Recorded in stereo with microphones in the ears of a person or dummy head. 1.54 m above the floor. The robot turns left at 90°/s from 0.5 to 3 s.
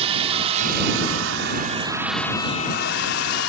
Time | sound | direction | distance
0.0 | running water | 35° right | ?